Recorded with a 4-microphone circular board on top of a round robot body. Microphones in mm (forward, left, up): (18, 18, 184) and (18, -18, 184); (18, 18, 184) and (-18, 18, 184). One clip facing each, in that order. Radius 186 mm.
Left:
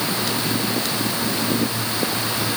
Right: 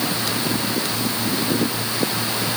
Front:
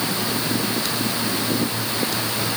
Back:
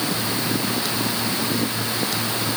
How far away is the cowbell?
I don't hear a cowbell.